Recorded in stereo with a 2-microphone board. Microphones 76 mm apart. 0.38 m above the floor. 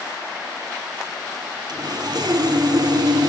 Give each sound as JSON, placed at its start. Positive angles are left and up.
{"t": 1.7, "sound": "sawing", "side_deg": -60, "distance_m": 2.5}